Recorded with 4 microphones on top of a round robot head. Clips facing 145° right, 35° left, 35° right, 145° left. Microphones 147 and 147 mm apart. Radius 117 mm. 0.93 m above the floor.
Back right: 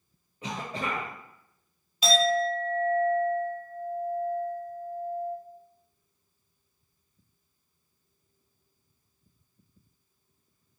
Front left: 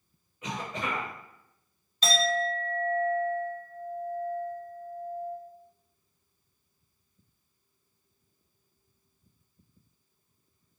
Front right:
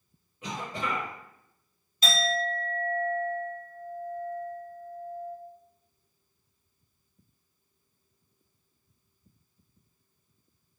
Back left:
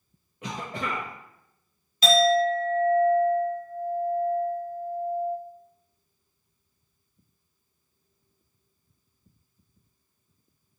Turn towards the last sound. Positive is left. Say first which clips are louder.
# back right 4 dB, back left 10 dB
turn(degrees=135)